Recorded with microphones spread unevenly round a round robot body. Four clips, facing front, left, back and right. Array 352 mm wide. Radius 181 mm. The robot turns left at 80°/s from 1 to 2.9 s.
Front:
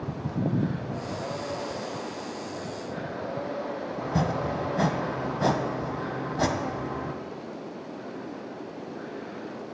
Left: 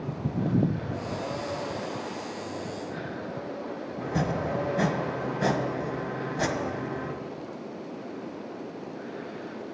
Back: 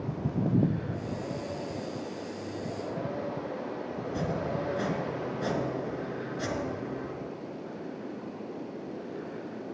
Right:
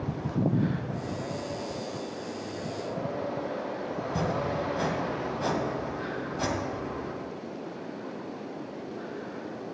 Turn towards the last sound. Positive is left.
turn(degrees=20)